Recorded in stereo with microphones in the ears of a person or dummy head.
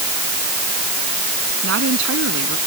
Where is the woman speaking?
75° right (ahead or behind).